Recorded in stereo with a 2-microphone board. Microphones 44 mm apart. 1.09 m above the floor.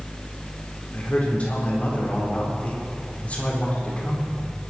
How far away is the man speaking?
About 4 m.